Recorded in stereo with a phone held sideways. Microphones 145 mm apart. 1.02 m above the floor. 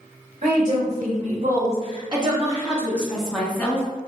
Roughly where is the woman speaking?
Right.